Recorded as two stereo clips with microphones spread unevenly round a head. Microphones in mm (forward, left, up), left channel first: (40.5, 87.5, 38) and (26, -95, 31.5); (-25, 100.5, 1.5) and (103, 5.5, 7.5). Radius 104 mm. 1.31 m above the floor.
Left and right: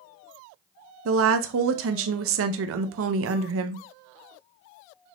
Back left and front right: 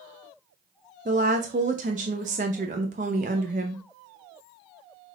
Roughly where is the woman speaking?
Right.